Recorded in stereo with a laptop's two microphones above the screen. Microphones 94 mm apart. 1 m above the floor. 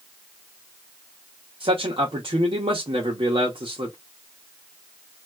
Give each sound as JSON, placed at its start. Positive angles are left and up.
{"t": 1.6, "sound": "a man speaking", "side_deg": -75, "distance_m": 1.1}